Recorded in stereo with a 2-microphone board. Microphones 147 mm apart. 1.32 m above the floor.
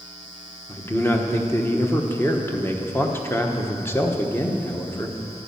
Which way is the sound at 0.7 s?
15° left (ahead or behind).